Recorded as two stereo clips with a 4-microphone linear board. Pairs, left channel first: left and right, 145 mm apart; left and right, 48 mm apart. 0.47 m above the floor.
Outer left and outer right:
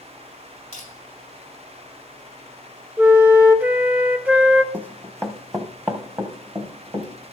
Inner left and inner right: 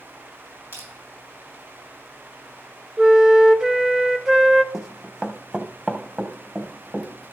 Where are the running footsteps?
10° right (ahead or behind), 1.3 m; by 7.3 s 35° right (ahead or behind), 3 m.